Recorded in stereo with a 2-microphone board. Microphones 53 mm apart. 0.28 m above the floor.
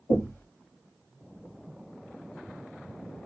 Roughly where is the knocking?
Left.